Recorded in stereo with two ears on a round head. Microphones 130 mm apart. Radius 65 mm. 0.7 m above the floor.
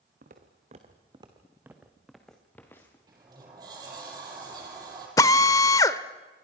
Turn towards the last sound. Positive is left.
turn(degrees=20)  # may be behind; listen again after turning